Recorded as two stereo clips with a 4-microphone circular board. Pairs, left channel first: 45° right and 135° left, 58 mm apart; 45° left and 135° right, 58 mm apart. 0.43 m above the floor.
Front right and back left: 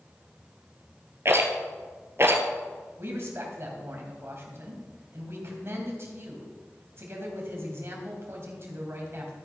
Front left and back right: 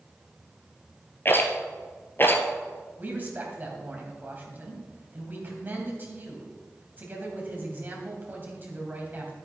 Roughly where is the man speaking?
Behind.